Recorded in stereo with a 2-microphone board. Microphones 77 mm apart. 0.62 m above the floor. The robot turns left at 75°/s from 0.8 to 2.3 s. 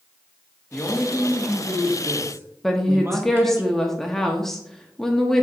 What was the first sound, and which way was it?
A man speaking, 15° left (ahead or behind).